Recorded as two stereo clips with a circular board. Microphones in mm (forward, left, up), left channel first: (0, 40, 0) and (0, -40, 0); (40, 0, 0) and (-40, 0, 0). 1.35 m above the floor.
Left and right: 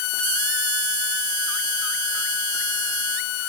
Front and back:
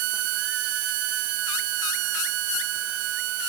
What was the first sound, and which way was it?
Only background noise.